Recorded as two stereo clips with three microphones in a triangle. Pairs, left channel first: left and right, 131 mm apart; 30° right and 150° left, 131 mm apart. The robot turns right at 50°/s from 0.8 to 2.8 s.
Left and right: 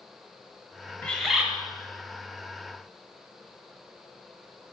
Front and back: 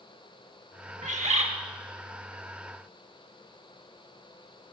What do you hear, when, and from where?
1.0 s a bird: 165° left, 0.6 m; by 1.5 s 170° right, 0.6 m